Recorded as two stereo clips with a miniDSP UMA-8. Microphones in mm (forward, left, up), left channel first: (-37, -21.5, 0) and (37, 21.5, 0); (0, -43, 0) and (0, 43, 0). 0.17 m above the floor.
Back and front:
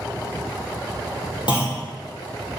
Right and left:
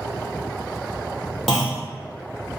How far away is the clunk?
About 1.9 m.